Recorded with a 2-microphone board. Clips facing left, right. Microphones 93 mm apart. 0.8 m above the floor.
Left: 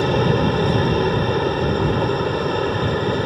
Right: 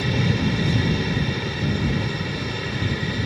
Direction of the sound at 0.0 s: 45° left (ahead or behind).